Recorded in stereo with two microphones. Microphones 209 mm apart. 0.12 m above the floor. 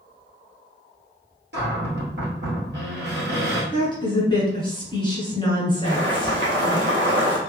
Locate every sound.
1.5 s a cupboard door: 60° right (ahead or behind), 1.6 m
3.7 s a woman speaking: 20° left (ahead or behind), 1.1 m
5.8 s boiling: 70° right (ahead or behind), 1.3 m